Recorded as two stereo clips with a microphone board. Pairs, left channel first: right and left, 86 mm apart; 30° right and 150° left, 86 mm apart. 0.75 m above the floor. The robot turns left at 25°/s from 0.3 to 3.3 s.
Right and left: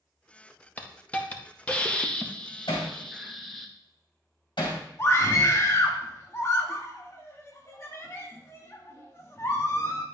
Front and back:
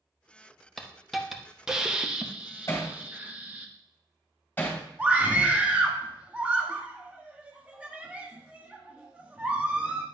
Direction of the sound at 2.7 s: 85° right.